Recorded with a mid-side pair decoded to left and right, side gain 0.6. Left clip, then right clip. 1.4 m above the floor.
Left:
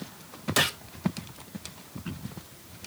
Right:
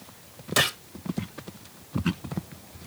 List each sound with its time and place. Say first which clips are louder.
0.6 s a gunshot: right 2 dB; 5° right, 0.8 m